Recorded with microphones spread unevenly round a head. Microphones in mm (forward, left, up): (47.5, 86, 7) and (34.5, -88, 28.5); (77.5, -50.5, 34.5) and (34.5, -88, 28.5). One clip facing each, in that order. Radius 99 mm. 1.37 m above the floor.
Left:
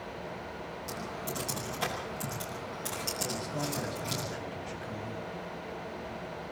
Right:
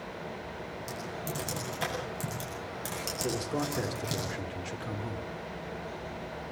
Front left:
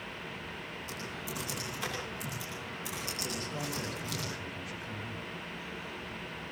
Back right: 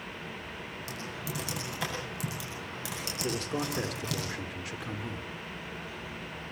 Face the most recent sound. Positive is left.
turn(degrees=-130)